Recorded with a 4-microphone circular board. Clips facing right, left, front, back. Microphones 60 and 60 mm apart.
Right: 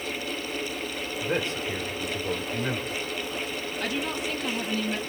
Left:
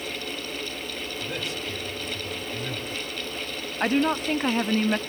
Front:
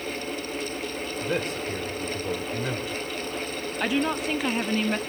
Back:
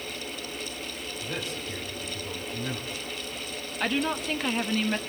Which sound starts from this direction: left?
A woman speaking, at 3.8 s.